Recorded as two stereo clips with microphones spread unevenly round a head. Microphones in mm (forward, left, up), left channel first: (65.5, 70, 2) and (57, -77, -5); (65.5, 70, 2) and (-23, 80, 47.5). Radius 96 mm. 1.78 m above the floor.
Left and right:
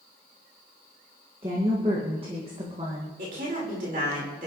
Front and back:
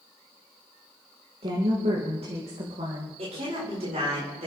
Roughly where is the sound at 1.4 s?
Behind.